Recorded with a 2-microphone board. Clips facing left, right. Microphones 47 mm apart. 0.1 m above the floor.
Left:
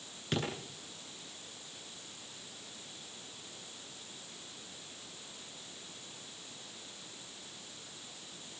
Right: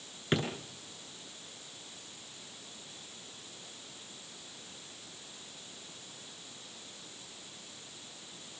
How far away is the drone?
I don't hear a drone.